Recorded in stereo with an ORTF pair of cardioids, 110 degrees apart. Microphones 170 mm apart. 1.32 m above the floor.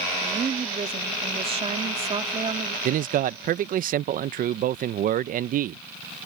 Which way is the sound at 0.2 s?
35° right.